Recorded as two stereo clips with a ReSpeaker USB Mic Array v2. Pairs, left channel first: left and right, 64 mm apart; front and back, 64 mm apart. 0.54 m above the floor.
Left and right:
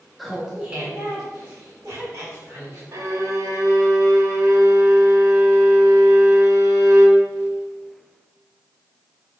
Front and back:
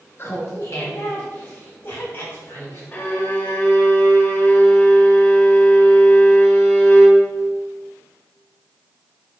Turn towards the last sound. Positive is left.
turn(degrees=-60)